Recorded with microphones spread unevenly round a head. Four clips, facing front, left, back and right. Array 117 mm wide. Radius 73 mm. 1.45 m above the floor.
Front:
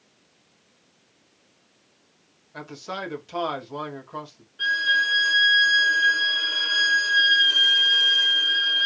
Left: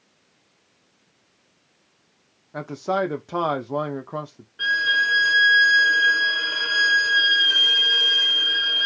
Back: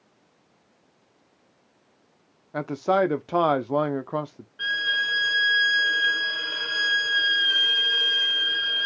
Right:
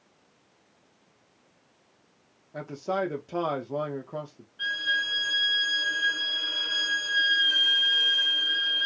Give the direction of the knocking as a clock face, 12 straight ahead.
I don't hear knocking.